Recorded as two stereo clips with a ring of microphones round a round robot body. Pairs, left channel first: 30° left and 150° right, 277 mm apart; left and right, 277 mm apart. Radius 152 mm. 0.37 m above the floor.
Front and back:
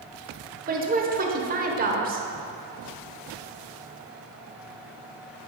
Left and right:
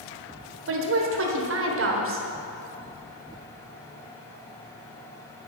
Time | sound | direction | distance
0.7 | a woman speaking | 100° right | 1.4 m